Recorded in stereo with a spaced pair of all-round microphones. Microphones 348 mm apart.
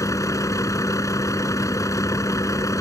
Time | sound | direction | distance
0.0 | a vehicle | 10° left (ahead or behind) | ?